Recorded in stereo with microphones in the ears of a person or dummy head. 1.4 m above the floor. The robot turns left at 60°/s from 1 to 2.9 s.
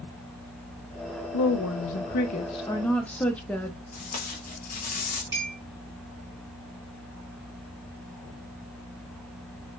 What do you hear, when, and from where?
1.3 s a woman speaking: 100° left, 0.8 m; by 3.8 s 5° left, 0.8 m
3.9 s tape being pulled: 45° left (ahead or behind), 1.0 m
5.3 s a clink: 15° right (ahead or behind), 2.5 m